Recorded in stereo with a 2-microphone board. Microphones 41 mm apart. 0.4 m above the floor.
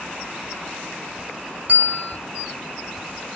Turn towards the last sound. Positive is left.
turn(degrees=-40)  # may be behind; listen again after turning